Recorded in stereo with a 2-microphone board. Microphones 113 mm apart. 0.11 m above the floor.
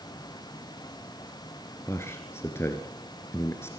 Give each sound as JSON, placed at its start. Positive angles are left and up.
{"t": 1.9, "sound": "a man speaking", "side_deg": 20, "distance_m": 1.7}